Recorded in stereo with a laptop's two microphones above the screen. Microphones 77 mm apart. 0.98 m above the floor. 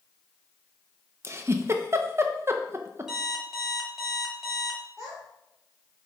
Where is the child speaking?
10° right (ahead or behind), 2.5 m.